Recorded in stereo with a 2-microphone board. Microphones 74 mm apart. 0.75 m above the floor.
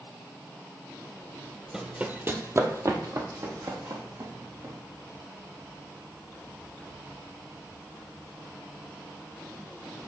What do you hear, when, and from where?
1.7 s running footsteps: 10° right (ahead or behind), 0.9 m; by 4.7 s 55° right (ahead or behind), 2.5 m